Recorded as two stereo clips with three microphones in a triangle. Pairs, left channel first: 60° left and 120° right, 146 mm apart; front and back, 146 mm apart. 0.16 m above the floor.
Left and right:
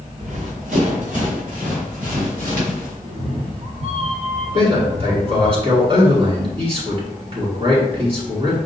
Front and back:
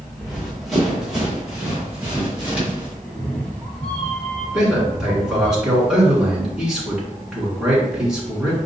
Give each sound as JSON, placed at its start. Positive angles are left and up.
{"t": 0.2, "sound": "running footsteps", "azimuth_deg": -85, "distance_m": 1.5}
{"t": 3.0, "sound": "a cat meowing", "azimuth_deg": -80, "distance_m": 0.9}
{"t": 4.5, "sound": "a man speaking", "azimuth_deg": -95, "distance_m": 2.0}